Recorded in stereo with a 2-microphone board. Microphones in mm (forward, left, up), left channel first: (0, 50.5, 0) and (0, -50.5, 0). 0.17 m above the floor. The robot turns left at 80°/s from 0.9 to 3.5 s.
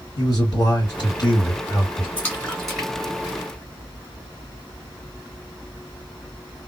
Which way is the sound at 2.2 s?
25° left (ahead or behind).